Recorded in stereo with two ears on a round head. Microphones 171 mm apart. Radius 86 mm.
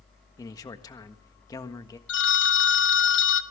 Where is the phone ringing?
60° left (ahead or behind), 1.0 m.